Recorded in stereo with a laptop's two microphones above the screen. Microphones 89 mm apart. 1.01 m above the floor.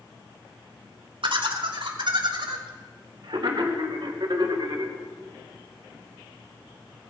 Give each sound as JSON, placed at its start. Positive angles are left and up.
{"t": 1.2, "sound": "laughter", "side_deg": -65, "distance_m": 2.5}